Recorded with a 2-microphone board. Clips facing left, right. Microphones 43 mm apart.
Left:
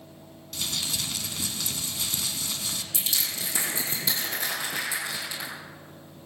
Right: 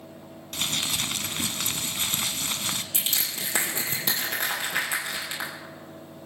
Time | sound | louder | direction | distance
0.5 | crumpling | right 3 dB | 50° right (ahead or behind) | 0.8 m
2.9 | crushing | right 1 dB | 60° right (ahead or behind) | 4 m